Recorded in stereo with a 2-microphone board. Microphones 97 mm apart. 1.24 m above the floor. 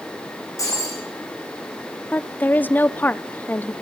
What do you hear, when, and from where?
0.6 s breaking glass: 35° left (ahead or behind), 7 m
2.1 s a woman speaking: 20° left (ahead or behind), 0.6 m